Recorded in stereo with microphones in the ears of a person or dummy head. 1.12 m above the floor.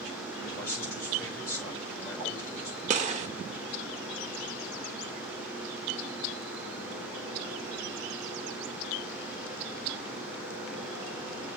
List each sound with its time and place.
0.3 s a man speaking: 15° left (ahead or behind), 4.5 m
2.9 s a gunshot: 35° right (ahead or behind), 1.0 m